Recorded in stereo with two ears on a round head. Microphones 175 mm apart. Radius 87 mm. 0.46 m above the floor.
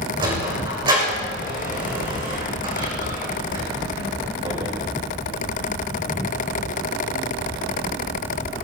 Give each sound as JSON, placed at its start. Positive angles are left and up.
{"t": 0.2, "sound": "a sliding door", "side_deg": -25, "distance_m": 7.0}